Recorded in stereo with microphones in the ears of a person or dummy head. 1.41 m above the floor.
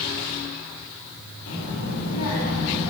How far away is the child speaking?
About 2.5 m.